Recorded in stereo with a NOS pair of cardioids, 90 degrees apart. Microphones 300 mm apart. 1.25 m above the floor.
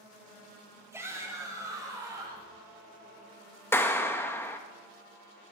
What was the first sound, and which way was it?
A shout, 10° right.